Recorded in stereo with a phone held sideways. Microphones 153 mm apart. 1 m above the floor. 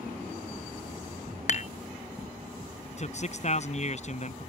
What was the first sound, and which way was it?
Dishes clattering, 50° left (ahead or behind).